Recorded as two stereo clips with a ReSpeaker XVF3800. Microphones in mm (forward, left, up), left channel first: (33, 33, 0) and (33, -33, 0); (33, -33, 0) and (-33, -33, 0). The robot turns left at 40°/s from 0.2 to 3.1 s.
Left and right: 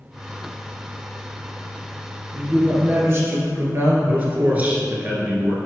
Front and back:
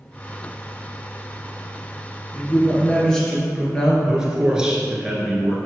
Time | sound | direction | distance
2.3 | a man speaking | 45° right | 1.6 m
4.1 | a man speaking | 115° right | 1.2 m